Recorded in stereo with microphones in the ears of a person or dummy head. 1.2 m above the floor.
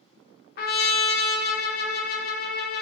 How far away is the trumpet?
About 0.6 m.